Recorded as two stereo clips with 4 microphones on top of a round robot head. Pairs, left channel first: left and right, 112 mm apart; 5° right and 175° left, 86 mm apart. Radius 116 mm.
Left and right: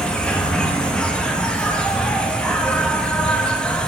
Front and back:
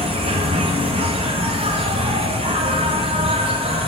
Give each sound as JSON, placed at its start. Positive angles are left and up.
{"t": 0.0, "sound": "an insect", "azimuth_deg": 170, "distance_m": 0.7}